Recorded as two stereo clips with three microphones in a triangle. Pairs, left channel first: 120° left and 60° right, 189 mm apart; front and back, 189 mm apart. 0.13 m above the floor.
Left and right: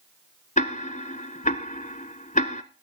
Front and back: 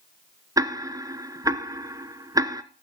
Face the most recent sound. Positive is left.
turn(degrees=120)